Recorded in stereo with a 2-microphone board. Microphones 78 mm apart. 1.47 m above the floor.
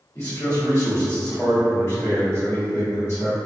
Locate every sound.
0.1 s a man speaking: 35° left (ahead or behind), 1.6 m